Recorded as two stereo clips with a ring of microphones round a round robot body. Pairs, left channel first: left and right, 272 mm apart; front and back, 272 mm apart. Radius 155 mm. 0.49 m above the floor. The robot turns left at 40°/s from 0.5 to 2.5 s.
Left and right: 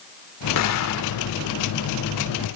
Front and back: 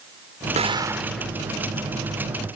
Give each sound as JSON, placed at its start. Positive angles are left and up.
{"t": 0.6, "sound": "an explosion", "azimuth_deg": 115}